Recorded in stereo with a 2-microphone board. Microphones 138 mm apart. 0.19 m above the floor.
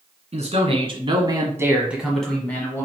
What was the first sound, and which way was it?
A man speaking, 50° right (ahead or behind).